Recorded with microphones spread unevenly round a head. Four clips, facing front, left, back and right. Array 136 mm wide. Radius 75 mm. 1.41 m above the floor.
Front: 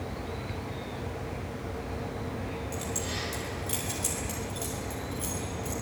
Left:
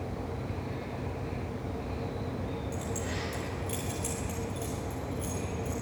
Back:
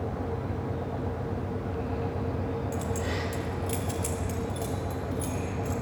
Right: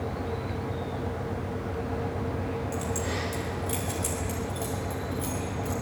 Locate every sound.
2.7 s keys jangling: 140° right, 4 m; by 5.7 s 120° right, 5.5 m